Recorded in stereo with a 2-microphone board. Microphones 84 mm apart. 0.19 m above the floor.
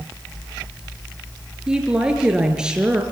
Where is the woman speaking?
10° right (ahead or behind), 4 m.